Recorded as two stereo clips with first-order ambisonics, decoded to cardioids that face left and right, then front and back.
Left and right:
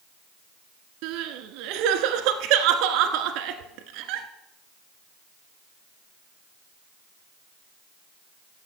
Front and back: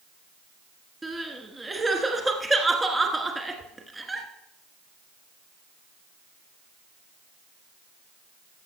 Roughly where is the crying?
Right.